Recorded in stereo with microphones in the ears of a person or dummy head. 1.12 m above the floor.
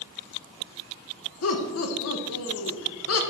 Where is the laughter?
70° left (ahead or behind), 1.2 m.